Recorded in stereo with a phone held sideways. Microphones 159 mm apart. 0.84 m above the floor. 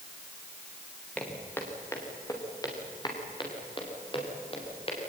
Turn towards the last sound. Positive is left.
turn(degrees=40)  # may be behind; listen again after turning